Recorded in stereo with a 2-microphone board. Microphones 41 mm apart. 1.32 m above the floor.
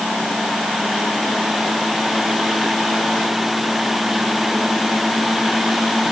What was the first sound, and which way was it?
Only background noise.